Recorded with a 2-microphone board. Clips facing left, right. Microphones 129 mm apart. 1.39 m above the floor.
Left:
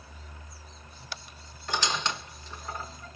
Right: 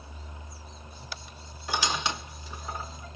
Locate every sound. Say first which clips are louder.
1.7 s a squeak: right 1 dB; 10° right (ahead or behind), 1.1 m